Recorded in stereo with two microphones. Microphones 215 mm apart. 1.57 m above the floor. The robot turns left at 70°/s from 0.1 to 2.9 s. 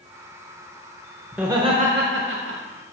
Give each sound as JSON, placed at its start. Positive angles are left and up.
{"t": 1.3, "sound": "laughter", "azimuth_deg": 0, "distance_m": 0.9}